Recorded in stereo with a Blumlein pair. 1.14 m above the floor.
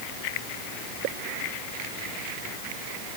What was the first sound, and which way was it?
Only background noise.